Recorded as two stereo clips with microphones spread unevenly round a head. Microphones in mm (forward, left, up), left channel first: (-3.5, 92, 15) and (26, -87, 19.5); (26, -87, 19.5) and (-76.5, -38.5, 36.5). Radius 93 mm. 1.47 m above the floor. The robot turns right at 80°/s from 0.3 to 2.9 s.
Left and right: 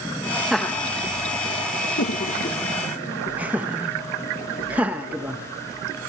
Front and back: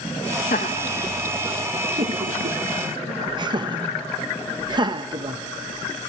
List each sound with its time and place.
0.5 s laughter: 5° left, 1.4 m; by 5.4 s 160° right, 1.4 m